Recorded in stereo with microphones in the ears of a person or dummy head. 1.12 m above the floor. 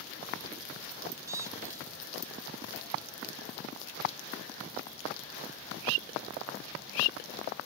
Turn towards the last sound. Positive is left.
turn(degrees=-15)  # may be behind; listen again after turning